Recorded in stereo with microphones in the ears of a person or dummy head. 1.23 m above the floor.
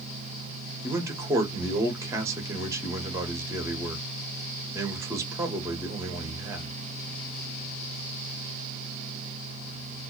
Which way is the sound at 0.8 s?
15° right (ahead or behind).